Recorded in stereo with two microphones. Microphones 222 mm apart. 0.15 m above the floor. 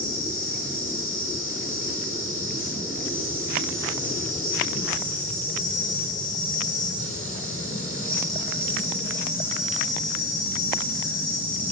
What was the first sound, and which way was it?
An insect, 70° left (ahead or behind).